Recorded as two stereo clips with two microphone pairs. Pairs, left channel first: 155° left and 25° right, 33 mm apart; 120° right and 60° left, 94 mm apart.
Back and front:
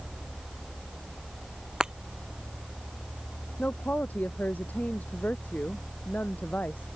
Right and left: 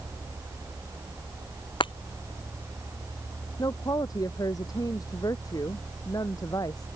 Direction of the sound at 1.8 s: 90° right.